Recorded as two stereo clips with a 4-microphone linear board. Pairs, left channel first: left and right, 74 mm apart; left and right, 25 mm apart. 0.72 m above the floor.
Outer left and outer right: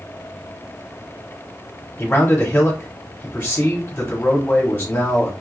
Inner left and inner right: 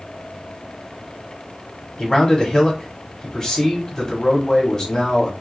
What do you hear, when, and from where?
2.0 s a man speaking: 30° left (ahead or behind), 1.1 m